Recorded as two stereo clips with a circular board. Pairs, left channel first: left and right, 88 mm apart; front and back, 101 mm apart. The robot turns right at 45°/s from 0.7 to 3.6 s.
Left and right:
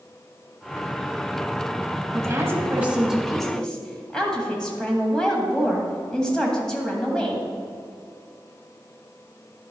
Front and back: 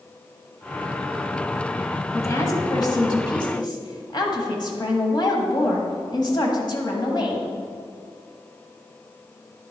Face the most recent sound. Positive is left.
turn(degrees=10)